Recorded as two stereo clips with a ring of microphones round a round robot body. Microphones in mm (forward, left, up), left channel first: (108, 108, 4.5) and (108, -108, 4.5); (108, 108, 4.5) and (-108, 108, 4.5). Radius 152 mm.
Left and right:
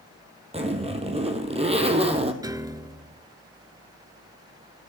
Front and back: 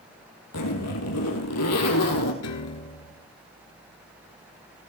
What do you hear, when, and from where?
0.5 s a zipper: 25° right, 2.5 m
2.4 s a piano: 15° right, 1.1 m